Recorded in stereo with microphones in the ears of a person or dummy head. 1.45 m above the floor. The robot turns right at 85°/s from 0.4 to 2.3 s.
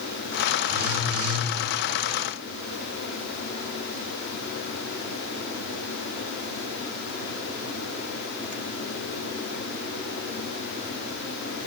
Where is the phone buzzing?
140° right, 0.7 m; by 1.5 s 70° right, 0.7 m.